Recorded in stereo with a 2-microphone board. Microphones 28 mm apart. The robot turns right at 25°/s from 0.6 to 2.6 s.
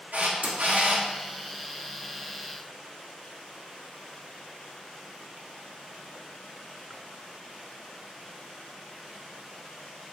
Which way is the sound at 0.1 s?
85° right.